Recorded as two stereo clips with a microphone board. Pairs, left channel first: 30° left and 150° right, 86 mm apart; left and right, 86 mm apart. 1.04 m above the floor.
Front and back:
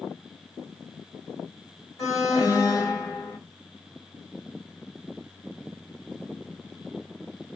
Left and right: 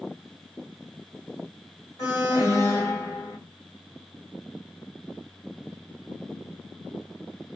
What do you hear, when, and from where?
2.0 s an alarm: 50° left, 1.7 m